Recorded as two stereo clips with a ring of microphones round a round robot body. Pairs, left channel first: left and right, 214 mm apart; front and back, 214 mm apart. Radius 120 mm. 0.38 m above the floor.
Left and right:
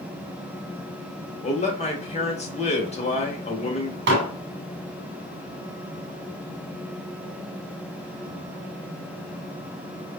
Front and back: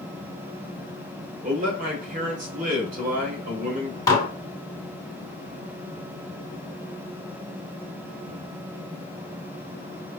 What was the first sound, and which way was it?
A man speaking, 140° left.